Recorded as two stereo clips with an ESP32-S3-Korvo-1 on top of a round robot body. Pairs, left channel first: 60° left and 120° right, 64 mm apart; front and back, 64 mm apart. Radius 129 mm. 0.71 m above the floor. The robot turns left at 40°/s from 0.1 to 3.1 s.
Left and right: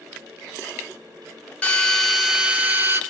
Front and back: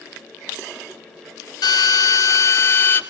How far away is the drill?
About 3.5 m.